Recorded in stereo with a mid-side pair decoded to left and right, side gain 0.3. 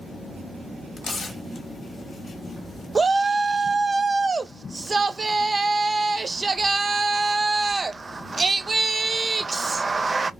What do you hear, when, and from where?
1.0 s tearing paper: 70° left, 1.1 m
3.0 s a shout: 45° right, 0.5 m